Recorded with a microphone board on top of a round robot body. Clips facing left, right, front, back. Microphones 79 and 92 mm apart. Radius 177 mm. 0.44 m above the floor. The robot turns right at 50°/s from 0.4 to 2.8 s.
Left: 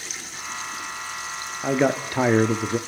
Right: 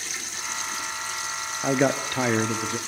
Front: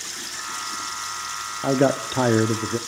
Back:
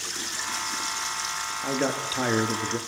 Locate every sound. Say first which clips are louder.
1.6 s a man speaking: left 1 dB, front 8 dB; 5° right, 1.1 m; by 2.8 s 50° left, 1.1 m